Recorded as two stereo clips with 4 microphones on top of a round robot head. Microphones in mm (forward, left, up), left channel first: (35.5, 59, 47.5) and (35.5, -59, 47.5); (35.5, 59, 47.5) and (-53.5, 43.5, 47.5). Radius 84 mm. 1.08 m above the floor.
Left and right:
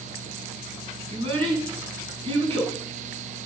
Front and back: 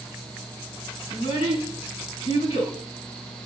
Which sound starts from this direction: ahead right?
A child speaking, at 1.1 s.